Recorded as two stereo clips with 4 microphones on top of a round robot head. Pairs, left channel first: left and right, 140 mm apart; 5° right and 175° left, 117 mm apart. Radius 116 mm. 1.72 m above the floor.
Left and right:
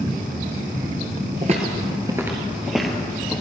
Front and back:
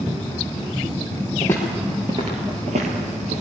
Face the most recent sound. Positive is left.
turn(degrees=170)